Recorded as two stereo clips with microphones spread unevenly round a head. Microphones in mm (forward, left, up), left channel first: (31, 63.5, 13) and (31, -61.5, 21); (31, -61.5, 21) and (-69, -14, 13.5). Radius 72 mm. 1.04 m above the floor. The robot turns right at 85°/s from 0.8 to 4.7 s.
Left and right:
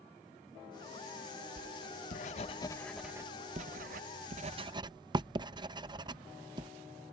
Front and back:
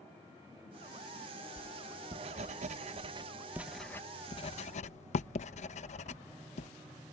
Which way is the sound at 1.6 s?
60° left.